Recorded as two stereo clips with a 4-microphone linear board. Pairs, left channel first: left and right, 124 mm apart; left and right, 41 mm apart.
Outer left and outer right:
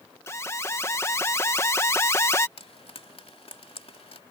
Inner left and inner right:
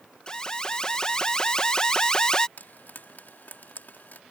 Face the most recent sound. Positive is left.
turn(degrees=55)  # may be behind; listen again after turning